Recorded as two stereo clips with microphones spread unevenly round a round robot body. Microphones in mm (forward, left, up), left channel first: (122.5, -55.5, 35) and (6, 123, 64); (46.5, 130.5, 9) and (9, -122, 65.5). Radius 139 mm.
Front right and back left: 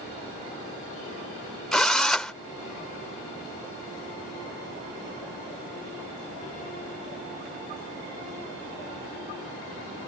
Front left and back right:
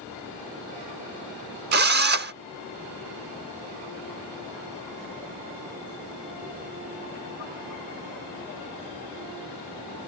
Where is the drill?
150° right.